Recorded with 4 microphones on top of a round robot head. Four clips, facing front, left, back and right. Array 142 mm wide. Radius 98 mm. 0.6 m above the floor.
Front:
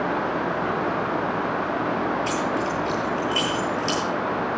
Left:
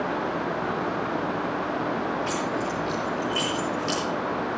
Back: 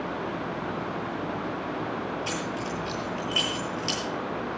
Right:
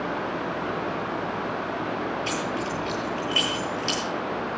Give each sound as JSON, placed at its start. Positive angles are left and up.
{"t": 2.3, "sound": "keys jangling", "azimuth_deg": -105, "distance_m": 9.5}